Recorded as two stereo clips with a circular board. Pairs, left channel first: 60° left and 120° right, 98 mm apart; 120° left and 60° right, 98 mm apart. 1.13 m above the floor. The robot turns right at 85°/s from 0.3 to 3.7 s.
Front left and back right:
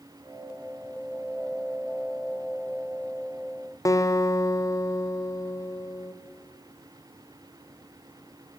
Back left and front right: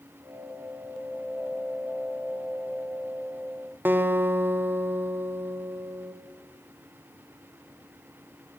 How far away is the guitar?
About 0.5 m.